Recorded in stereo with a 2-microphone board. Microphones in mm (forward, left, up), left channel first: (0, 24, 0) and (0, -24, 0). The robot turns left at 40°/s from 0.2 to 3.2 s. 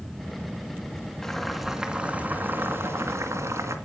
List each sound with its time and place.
1.2 s boiling: 10° left, 2.5 m; by 3.8 s 65° right, 2.5 m